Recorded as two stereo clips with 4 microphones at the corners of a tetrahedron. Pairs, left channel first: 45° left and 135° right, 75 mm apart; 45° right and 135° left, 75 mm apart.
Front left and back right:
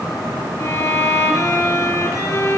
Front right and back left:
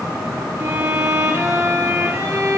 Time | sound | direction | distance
0.6 | a violin | 80° left | 3 m